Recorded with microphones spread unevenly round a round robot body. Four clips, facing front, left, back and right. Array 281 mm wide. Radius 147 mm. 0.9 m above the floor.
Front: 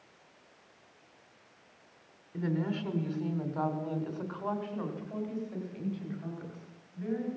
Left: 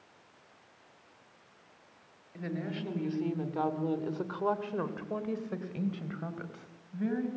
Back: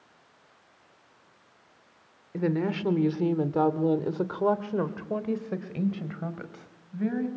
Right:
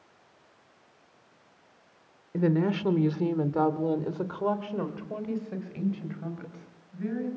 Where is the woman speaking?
115° right, 2.5 m; by 7.3 s 160° left, 5 m.